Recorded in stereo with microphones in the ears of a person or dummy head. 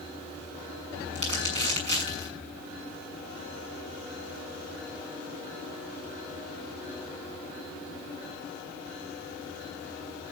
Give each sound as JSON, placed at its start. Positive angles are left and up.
{"t": 1.1, "sound": "crumpling", "side_deg": -40, "distance_m": 6.5}